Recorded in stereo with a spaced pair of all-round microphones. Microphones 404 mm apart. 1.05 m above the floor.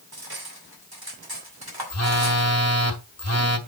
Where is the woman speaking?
No woman speaking in this recording.